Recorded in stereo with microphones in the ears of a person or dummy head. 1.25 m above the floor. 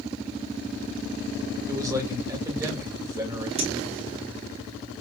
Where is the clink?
30° right (ahead or behind), 1.8 m.